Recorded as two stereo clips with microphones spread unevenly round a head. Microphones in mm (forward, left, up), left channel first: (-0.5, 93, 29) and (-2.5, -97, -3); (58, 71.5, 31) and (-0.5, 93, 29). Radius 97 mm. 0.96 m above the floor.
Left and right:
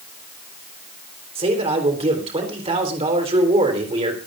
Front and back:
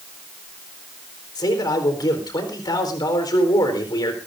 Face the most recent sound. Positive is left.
turn(degrees=-30)